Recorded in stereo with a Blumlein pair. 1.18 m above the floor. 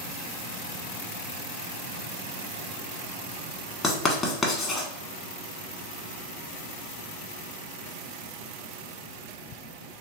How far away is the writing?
About 1.0 m.